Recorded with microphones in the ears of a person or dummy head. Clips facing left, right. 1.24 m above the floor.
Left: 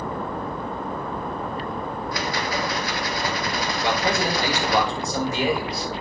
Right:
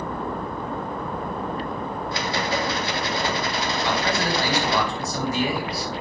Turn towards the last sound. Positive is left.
turn(degrees=20)  # may be behind; listen again after turning